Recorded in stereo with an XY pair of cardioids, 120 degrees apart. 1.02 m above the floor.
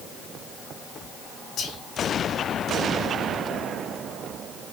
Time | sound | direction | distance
1.6 | whispering | 65° left | 0.7 m